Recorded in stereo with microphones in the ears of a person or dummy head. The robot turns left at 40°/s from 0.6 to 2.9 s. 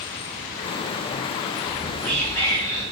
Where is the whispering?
170° right, 0.8 m; by 2.8 s 140° left, 0.8 m.